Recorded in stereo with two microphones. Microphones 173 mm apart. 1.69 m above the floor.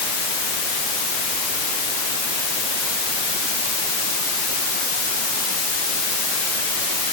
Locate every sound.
Only background noise.